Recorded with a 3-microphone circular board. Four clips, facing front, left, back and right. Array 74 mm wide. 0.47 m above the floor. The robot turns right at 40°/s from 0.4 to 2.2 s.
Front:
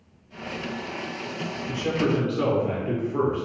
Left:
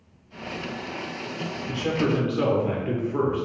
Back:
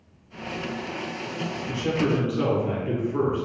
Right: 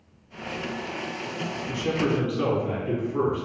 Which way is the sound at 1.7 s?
90° left.